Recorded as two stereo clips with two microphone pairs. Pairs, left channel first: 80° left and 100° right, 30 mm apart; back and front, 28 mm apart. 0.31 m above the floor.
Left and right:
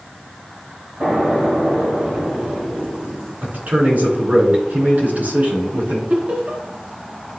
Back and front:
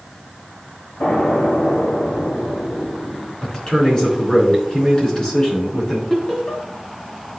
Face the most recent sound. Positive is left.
turn(degrees=-115)